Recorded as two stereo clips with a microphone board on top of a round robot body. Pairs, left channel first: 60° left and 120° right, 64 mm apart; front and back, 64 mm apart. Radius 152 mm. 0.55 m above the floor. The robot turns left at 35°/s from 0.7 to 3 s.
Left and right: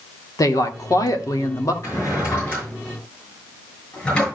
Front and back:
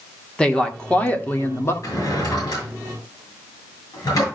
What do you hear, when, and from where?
0.4 s a woman speaking: 75° left, 1.8 m; by 1.7 s 40° left, 1.8 m
1.8 s a drawer: 25° left, 7.5 m; by 4.3 s 15° right, 7.5 m